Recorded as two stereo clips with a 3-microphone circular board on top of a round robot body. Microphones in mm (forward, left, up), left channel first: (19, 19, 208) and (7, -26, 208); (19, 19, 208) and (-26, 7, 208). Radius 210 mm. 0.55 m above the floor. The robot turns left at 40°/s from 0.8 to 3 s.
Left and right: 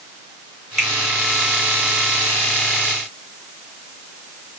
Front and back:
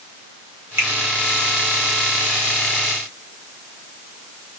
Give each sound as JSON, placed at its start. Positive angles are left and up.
{"t": 0.8, "sound": "a finger snap", "azimuth_deg": 175, "distance_m": 2.5}